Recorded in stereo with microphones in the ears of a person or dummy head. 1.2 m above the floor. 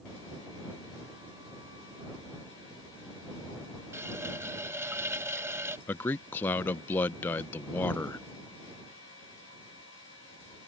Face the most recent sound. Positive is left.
turn(degrees=10)  # may be behind; listen again after turning